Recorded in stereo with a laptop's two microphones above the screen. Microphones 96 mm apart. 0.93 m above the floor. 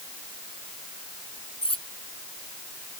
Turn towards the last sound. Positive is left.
turn(degrees=80)